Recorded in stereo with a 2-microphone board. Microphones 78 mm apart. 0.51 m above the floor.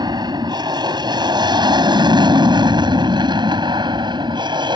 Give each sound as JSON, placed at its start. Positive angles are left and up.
{"t": 0.0, "sound": "an aircraft", "side_deg": -60}